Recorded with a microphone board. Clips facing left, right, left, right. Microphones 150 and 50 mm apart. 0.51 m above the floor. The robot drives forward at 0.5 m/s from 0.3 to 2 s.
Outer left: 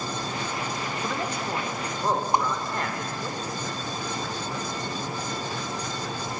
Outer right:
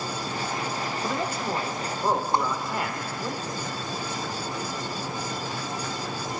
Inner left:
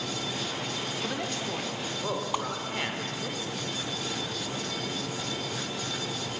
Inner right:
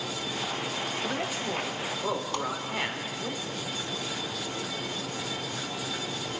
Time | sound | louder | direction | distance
1.0 | a man speaking | outer right 2 dB, inner right 1 dB | 10° right (ahead or behind) | 1.6 m
2.3 | a whoosh | outer left 3 dB, inner left 1 dB | 15° left (ahead or behind) | 1.2 m